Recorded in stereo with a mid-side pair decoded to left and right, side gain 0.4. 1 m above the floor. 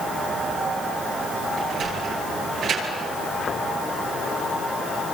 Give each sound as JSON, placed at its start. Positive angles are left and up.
{"t": 1.6, "sound": "a sliding door", "azimuth_deg": -65, "distance_m": 10.0}